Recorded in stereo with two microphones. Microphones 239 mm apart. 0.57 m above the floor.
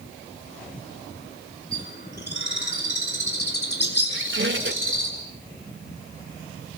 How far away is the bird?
About 7 m.